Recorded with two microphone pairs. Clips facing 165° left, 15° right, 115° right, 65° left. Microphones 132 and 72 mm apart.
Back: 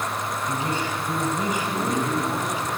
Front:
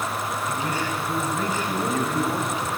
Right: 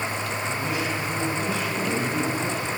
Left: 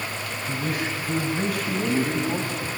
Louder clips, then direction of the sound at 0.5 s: Back 1 dB, left 2 dB; 105° left.